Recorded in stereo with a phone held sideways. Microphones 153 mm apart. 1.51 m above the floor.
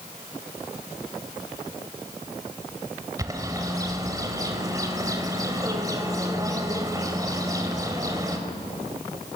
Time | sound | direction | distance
3.2 | a bird | 25° right (ahead or behind) | 2.5 m